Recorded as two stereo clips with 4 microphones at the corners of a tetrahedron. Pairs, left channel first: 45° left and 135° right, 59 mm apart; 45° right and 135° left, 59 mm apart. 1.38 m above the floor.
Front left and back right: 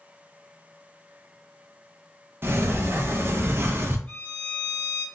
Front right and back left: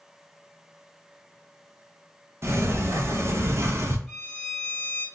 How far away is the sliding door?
About 0.6 m.